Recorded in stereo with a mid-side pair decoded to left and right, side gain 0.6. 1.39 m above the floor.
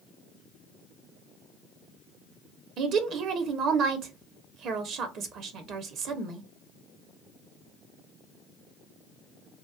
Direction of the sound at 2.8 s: 60° right.